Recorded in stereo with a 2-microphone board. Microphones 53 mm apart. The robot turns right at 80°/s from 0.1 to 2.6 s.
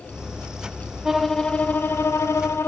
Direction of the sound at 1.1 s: 10° right.